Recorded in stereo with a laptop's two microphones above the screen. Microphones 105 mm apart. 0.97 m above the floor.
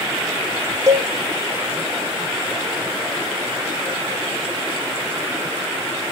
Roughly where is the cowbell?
Right.